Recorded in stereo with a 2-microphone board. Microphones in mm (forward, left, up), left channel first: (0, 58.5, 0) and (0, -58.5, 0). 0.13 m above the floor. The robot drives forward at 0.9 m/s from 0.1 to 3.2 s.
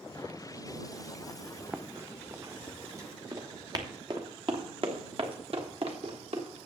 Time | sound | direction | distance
1.7 | running footsteps | 15° right (ahead or behind) | 0.7 m